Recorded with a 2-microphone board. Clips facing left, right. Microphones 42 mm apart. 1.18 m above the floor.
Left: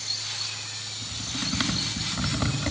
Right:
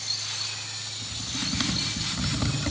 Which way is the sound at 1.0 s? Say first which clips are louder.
Left 1 dB; 10° left (ahead or behind).